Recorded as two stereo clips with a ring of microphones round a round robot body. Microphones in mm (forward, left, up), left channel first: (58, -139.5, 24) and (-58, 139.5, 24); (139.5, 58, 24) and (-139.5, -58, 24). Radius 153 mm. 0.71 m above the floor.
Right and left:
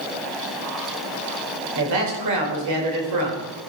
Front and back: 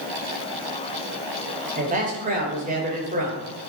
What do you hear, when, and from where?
1.8 s a man speaking: 140° left, 2.5 m